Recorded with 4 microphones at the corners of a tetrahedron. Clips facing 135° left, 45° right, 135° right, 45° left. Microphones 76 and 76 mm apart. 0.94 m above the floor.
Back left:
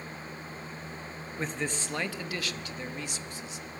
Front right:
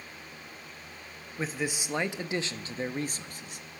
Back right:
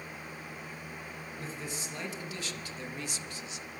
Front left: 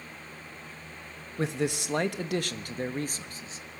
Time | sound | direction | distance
1.4 | a man speaking | 40° left | 1.4 m